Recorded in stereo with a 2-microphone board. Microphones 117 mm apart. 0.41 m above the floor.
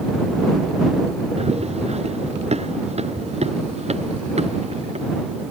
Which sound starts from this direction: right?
Running footsteps, at 1.4 s.